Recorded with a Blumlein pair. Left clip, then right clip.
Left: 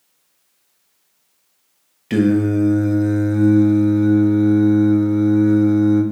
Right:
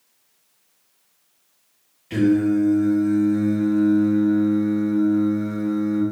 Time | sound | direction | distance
2.1 | singing | 30° left | 0.8 m